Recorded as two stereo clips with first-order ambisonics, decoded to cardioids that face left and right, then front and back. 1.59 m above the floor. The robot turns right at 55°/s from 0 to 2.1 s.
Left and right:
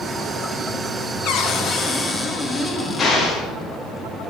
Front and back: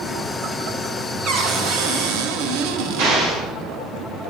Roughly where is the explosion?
Behind.